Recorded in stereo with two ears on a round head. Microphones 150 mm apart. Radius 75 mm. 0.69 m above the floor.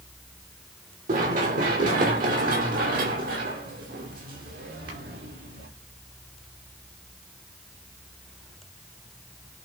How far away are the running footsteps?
About 4.5 m.